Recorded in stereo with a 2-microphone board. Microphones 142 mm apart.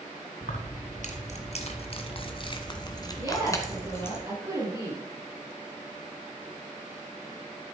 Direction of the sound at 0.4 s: 65° left (ahead or behind).